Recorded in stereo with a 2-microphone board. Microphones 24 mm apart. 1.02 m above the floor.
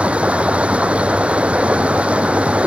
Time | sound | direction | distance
0.0 | running water | 80° right | ?